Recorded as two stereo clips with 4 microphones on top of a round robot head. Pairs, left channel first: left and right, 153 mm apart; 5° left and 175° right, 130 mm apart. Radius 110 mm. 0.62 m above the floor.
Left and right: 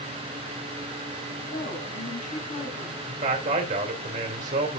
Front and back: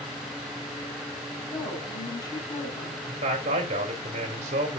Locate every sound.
1.4 s a woman speaking: 65° left, 4 m
3.1 s a man speaking: 130° right, 2.5 m